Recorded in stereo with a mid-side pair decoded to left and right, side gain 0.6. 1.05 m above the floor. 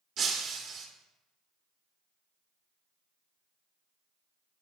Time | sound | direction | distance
0.2 | breaking glass | 45° right | 1.5 m